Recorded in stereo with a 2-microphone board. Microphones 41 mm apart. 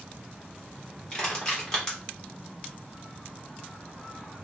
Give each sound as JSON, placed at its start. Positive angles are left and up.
{"t": 1.1, "sound": "crushing", "side_deg": 15, "distance_m": 1.2}